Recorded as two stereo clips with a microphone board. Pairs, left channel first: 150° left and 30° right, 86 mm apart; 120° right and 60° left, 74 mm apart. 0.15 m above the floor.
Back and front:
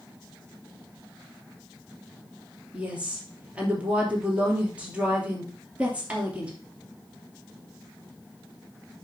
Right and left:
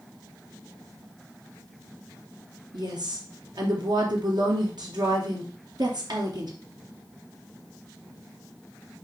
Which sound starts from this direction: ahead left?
A woman speaking, at 2.7 s.